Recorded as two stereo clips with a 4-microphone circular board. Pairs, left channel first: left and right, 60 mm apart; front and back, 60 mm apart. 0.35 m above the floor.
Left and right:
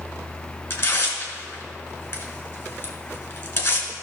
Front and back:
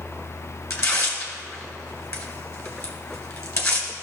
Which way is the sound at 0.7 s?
40° left.